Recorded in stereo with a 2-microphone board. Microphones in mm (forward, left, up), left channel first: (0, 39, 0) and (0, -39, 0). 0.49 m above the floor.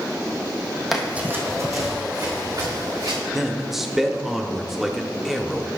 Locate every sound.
0.9 s running footsteps: 5° right (ahead or behind), 1.4 m; by 3.2 s 70° right (ahead or behind), 4 m
3.3 s a man speaking: 5° right (ahead or behind), 0.7 m